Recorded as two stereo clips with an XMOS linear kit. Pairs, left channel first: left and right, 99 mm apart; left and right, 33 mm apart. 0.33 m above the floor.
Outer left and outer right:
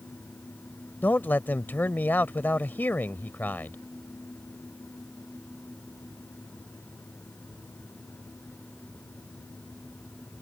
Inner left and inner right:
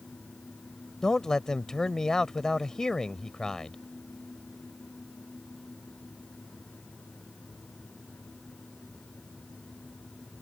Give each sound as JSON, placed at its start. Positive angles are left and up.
{"t": 1.0, "sound": "a man speaking", "side_deg": 20}